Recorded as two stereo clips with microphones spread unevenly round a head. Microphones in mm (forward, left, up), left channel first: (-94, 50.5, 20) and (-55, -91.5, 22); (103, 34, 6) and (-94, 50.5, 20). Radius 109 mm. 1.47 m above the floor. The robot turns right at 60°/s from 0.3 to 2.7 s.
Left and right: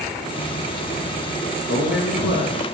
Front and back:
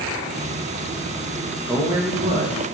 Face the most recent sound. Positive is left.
turn(degrees=145)